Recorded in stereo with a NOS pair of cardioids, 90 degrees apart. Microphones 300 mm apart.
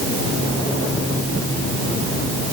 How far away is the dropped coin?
No dropped coin in this recording.